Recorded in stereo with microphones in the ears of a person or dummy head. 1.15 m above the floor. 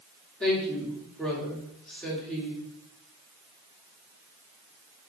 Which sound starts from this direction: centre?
A woman speaking, at 0.4 s.